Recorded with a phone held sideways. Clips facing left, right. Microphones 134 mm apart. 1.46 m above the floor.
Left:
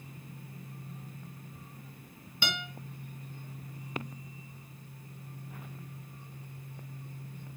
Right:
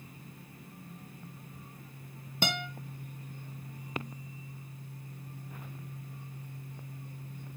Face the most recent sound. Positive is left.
turn(degrees=-45)  # may be behind; listen again after turning